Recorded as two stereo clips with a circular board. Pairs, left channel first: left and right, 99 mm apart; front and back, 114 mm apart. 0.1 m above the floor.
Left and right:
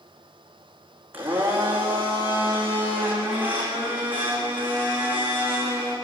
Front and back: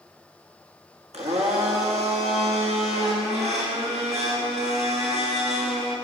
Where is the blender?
160° right, 5 m.